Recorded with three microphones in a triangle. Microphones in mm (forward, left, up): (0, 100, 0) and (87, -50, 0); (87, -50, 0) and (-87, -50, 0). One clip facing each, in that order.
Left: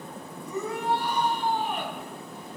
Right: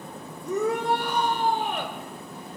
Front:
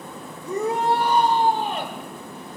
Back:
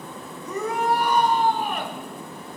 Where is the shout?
60° right, 3 m.